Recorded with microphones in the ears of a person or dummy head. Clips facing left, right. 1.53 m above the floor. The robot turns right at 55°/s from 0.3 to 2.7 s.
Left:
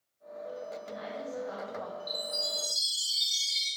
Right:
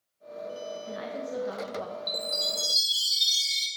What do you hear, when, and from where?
0.8 s a woman speaking: 120° right, 1.1 m; by 2.0 s 50° right, 1.1 m
2.1 s a chime: 80° right, 1.8 m; by 3.7 s 45° right, 1.8 m